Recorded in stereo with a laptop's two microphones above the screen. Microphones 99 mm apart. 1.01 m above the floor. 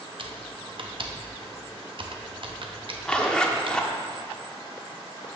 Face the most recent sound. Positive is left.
turn(degrees=10)  # may be behind; listen again after turning